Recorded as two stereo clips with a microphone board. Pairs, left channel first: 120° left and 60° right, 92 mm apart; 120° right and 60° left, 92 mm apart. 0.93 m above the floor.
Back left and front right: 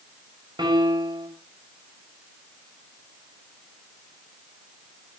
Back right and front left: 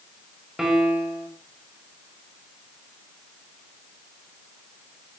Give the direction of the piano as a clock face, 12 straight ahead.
1 o'clock.